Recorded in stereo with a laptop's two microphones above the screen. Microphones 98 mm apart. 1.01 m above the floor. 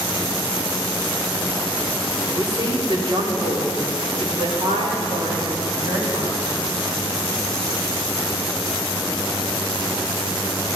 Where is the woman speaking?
45° right (ahead or behind), 2 m; by 6.4 s 65° right (ahead or behind), 4 m.